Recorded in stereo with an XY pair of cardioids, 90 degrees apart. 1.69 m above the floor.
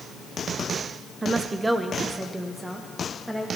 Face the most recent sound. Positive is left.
turn(degrees=-5)